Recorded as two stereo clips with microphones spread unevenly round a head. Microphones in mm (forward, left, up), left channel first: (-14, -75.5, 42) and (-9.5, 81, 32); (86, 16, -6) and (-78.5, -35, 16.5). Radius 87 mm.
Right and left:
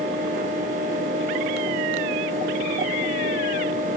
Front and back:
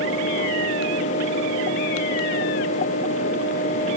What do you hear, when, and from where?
Only background noise.